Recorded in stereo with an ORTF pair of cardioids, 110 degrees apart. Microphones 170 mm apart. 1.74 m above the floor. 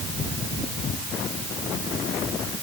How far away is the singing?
No singing in this recording.